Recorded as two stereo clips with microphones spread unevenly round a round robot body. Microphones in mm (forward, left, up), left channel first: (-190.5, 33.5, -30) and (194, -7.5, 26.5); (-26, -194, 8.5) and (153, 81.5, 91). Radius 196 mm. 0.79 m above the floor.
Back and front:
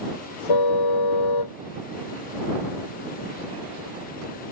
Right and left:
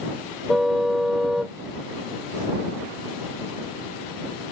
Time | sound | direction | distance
0.5 | a car horn | 145° left | ?